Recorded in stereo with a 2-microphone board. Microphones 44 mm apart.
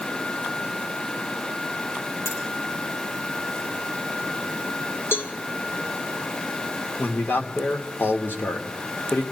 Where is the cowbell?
60° left (ahead or behind), 1.3 m.